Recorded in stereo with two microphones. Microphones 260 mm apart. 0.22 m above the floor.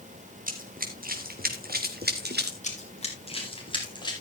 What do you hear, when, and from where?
0.5 s running footsteps: 35° right (ahead or behind), 3 m; by 2.5 s 40° right (ahead or behind), 1.8 m
2.6 s running footsteps: 30° left (ahead or behind), 4.5 m; by 4.1 s 15° left (ahead or behind), 5 m